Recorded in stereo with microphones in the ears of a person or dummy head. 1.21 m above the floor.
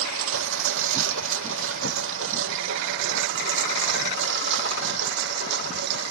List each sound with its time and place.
0.0 s a lawn mower: 85° right; by 6.1 s 65° right (ahead or behind)